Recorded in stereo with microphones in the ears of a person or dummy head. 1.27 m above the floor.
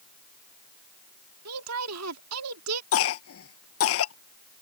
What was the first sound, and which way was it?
A woman speaking, 80° right.